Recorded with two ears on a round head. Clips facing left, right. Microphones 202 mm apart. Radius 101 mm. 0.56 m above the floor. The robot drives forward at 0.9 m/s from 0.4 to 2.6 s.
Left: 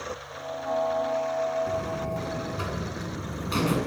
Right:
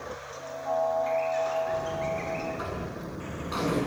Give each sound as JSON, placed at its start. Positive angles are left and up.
{"t": 1.7, "sound": "a buzzer", "side_deg": 40, "distance_m": 7.5}